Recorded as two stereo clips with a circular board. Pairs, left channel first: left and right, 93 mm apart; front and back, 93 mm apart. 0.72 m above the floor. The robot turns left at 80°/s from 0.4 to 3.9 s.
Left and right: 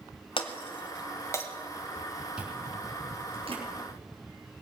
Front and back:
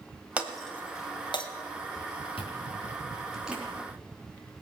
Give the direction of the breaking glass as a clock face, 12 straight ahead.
8 o'clock.